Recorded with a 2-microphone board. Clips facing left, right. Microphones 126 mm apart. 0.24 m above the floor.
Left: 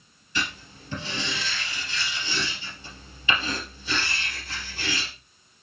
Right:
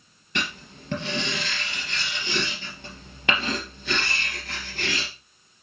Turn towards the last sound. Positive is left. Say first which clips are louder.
# right 1 dB
turn(degrees=-65)  # may be behind; listen again after turning